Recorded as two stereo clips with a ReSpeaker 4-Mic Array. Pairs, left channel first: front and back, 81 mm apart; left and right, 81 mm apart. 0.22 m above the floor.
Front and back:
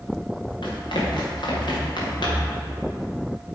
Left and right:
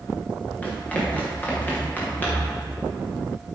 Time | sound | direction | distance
0.6 | running footsteps | 15° left | 3.5 m